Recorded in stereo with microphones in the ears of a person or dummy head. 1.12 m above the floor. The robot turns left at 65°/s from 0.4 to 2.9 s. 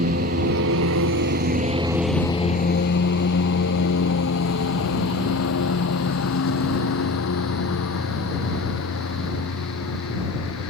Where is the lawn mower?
50° right (ahead or behind); by 10.7 s 80° left.